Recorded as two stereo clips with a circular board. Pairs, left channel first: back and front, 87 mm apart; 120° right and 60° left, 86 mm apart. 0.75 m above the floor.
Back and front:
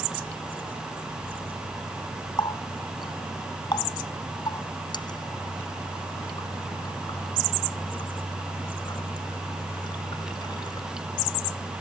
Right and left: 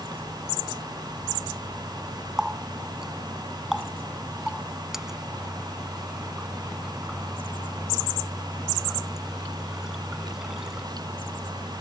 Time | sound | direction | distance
2.4 | a running tap | 145° left | ?